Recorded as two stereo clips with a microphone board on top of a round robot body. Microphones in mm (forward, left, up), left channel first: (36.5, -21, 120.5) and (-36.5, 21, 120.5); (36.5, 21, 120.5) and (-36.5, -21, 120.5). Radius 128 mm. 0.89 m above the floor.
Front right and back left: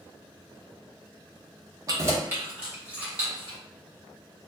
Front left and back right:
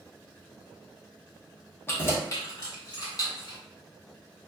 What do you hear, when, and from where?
1.9 s keys jangling: 95° left, 0.9 m; by 3.6 s 70° left, 2.0 m